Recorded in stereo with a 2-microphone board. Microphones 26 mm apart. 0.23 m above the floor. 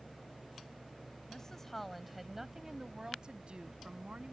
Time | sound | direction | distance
1.3 | a woman speaking | 25° left (ahead or behind) | ?